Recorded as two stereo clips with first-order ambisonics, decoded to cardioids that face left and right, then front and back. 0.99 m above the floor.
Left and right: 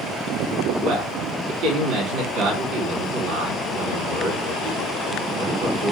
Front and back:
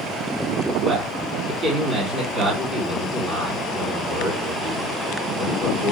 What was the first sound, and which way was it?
A man speaking, 120° right.